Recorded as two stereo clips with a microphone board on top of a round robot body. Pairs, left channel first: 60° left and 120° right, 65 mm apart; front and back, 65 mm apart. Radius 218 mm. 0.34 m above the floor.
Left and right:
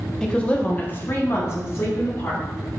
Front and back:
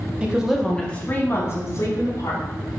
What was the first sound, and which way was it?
A woman speaking, 130° left.